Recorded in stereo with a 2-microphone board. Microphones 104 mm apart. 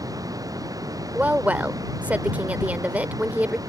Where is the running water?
35° right (ahead or behind).